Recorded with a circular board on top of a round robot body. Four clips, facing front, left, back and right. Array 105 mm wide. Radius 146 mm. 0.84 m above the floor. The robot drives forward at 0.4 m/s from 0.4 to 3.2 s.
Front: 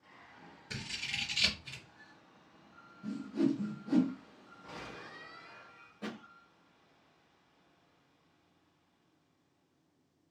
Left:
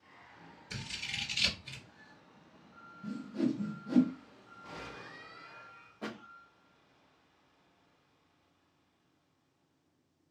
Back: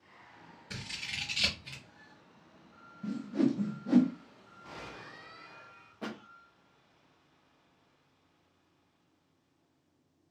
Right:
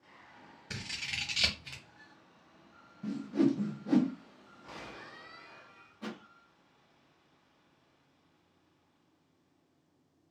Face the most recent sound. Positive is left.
turn(degrees=160)